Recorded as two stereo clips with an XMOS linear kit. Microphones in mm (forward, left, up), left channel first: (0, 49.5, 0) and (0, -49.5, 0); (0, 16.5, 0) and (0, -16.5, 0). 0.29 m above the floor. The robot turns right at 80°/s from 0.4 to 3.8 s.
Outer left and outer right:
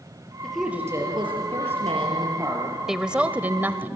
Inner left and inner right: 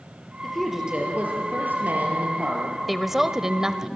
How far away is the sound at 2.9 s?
About 0.9 m.